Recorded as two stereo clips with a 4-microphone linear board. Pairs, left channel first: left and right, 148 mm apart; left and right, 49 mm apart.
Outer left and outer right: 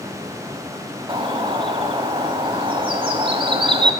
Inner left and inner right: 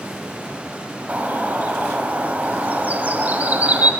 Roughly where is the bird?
Right.